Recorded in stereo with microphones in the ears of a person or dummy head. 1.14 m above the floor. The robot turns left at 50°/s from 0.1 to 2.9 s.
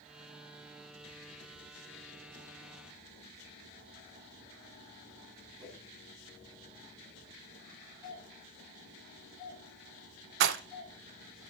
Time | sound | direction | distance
5.6 | a whoosh | 35° right (ahead or behind) | 6.5 m
8.0 | a doorbell | 25° right (ahead or behind) | 3.5 m
10.4 | a rattle | 65° right (ahead or behind) | 0.6 m